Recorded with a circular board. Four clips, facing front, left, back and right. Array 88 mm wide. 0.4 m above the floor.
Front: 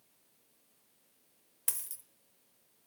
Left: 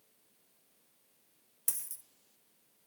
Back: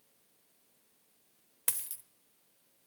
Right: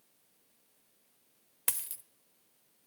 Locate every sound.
1.7 s a dropped coin: 115° right, 0.6 m